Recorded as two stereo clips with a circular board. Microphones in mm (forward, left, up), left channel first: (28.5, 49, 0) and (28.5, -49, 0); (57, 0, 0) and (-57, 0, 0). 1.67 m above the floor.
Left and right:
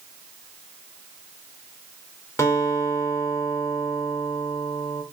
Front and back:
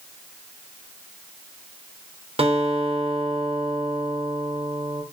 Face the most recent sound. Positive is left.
turn(degrees=150)